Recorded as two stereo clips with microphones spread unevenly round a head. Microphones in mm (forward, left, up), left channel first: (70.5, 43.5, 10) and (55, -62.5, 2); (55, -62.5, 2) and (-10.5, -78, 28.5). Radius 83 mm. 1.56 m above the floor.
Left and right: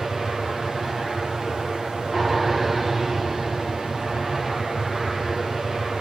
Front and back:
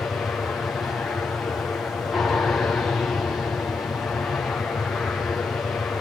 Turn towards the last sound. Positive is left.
turn(degrees=-15)